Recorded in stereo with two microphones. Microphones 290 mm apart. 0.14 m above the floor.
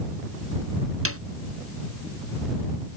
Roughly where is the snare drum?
Right.